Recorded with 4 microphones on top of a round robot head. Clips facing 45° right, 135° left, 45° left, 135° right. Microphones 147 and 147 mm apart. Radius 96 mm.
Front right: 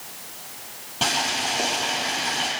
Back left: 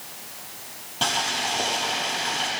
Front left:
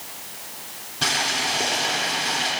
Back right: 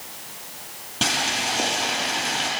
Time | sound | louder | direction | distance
1.0 | boiling | front right 1 dB, back right 1 dB | 130° right | 8.5 m